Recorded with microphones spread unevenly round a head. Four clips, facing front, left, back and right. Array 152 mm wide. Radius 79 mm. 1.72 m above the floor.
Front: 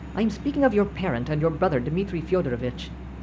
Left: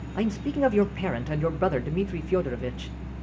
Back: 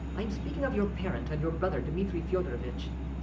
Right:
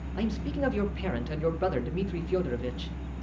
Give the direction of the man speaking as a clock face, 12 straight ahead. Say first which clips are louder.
Left 5 dB, front 12 dB; 11 o'clock.